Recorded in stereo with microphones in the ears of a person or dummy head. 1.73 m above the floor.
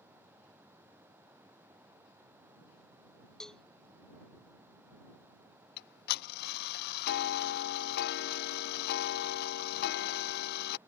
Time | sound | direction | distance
3.4 | a cowbell | 5° left (ahead or behind) | ?
5.8 | ticking | 55° left (ahead or behind) | ?